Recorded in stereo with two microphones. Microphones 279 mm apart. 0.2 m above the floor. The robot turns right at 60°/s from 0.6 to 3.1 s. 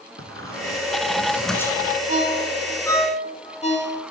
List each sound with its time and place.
0.2 s a squeak: 45° right (ahead or behind), 0.9 m; by 2.0 s 30° left (ahead or behind), 0.9 m
2.1 s a ringtone: 30° right (ahead or behind), 0.9 m; by 4.0 s 20° left (ahead or behind), 0.9 m